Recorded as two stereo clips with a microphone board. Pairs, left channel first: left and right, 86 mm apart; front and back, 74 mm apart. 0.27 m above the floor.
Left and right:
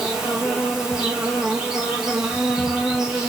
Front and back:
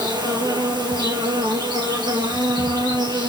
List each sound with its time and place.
0.0 s an insect: 175° right, 3.5 m